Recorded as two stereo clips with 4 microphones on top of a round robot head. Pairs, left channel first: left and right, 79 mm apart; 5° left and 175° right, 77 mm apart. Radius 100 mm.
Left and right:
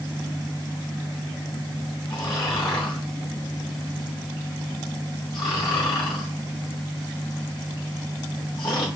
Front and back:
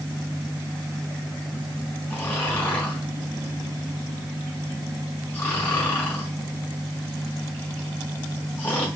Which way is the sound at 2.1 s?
70° left.